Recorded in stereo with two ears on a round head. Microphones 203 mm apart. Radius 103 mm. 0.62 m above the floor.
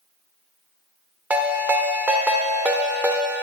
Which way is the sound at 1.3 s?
5° right (ahead or behind).